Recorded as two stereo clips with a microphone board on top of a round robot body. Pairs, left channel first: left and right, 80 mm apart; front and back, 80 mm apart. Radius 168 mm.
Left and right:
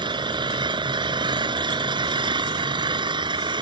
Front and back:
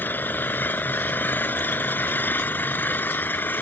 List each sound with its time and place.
0.0 s an engine running: 70° right